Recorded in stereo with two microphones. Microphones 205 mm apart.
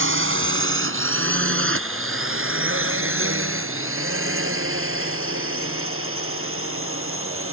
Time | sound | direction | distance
0.0 | a drone | 75° right (ahead or behind) | ?